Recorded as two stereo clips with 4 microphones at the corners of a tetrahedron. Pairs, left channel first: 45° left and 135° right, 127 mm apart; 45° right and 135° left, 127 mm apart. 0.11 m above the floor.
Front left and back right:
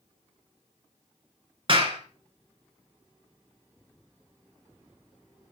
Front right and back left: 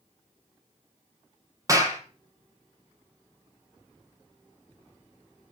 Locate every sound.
1.7 s a clap: 170° right, 2 m